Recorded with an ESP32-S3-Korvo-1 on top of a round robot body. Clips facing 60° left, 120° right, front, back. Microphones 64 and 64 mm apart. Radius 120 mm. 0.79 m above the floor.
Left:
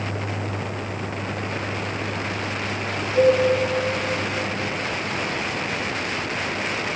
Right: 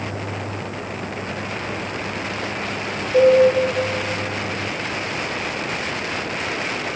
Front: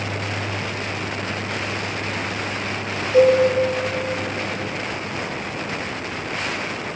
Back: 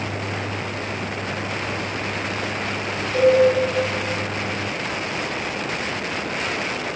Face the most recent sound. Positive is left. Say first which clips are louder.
# right 4 dB, front 3 dB
turn(degrees=-65)